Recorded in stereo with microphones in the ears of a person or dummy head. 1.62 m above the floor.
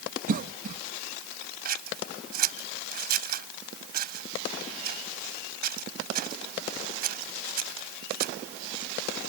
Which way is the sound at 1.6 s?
50° right (ahead or behind).